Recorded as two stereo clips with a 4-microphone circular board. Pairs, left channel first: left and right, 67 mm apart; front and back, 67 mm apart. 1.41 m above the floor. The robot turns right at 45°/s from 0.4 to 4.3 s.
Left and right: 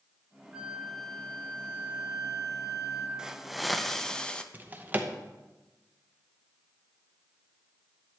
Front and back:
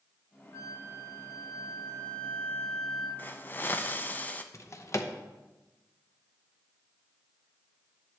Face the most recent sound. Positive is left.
turn(degrees=-30)